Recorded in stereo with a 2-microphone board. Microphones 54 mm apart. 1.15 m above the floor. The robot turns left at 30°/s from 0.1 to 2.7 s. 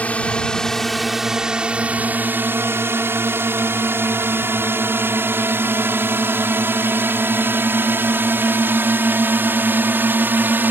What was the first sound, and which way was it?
A drone, 25° left (ahead or behind).